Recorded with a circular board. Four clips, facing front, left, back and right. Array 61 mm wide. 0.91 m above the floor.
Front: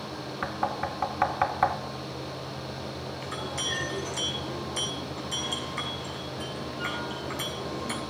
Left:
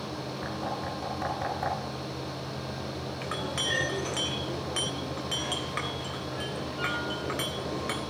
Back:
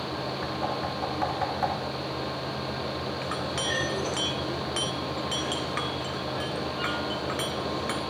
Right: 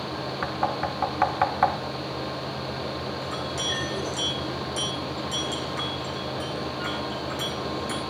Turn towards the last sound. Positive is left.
turn(degrees=145)